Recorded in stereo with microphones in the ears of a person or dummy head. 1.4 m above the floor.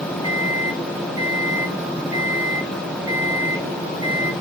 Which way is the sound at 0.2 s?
20° right (ahead or behind).